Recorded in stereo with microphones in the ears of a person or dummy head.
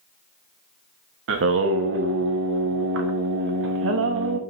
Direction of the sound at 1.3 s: 75° right (ahead or behind).